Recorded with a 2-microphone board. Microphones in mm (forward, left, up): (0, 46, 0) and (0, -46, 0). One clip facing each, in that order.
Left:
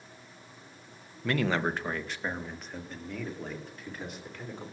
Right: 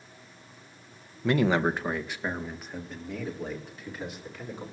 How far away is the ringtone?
No ringtone in this recording.